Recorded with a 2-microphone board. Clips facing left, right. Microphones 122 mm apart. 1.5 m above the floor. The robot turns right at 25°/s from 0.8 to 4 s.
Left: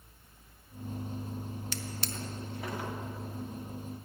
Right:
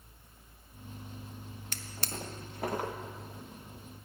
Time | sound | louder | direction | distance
1.7 | a drawer | left 3 dB | 50° right (ahead or behind) | 0.8 m